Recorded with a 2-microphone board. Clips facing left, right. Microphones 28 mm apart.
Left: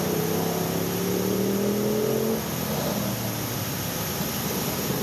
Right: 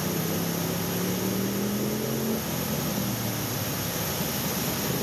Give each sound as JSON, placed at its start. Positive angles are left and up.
{"t": 0.0, "sound": "a motorcycle", "side_deg": 85}